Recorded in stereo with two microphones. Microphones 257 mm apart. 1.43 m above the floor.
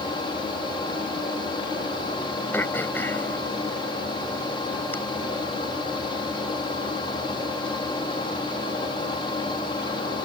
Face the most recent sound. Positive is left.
turn(degrees=10)  # may be behind; listen again after turning